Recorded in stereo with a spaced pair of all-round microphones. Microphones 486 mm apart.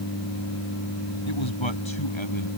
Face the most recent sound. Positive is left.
turn(degrees=70)  # may be behind; listen again after turning